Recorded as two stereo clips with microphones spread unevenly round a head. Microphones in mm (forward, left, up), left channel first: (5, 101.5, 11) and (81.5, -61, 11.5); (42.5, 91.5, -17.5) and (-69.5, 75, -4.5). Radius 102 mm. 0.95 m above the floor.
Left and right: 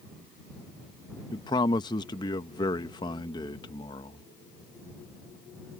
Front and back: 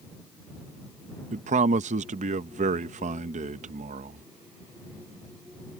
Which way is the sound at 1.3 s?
175° right.